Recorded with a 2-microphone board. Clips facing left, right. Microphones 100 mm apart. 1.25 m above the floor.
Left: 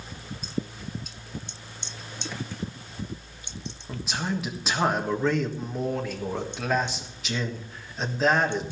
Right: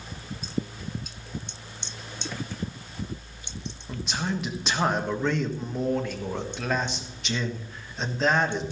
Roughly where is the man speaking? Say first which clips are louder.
Even; centre.